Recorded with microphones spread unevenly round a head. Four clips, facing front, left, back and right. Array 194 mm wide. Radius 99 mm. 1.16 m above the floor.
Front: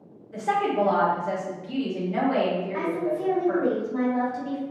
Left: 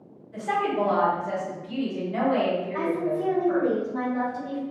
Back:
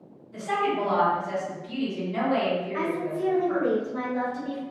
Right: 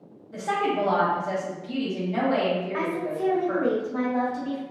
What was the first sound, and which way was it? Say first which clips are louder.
A woman speaking: even, front 2 dB; 40° right.